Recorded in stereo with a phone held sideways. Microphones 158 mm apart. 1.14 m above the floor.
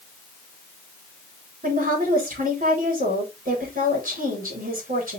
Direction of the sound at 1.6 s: 60° right (ahead or behind).